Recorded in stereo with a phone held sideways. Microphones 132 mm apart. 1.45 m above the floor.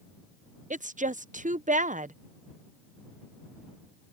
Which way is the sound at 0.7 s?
75° right (ahead or behind).